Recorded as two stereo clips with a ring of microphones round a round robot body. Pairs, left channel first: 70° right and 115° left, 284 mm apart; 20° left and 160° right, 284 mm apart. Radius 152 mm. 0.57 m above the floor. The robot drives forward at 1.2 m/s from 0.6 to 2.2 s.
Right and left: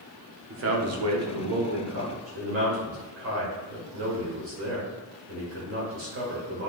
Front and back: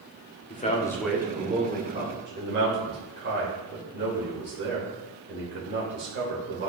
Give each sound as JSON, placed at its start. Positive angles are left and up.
{"t": 0.5, "sound": "a man speaking", "azimuth_deg": 80, "distance_m": 1.2}